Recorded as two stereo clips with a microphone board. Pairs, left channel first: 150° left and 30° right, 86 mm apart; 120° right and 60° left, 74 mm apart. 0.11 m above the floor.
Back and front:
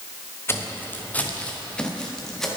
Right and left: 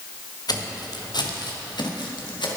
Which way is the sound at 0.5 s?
150° right.